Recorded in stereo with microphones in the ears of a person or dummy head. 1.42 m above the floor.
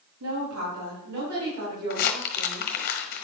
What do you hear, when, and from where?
0.2 s a woman speaking: 85° right, 4 m; by 2.7 s 55° right (ahead or behind), 5.5 m
1.9 s crumpling: 45° left (ahead or behind), 1.2 m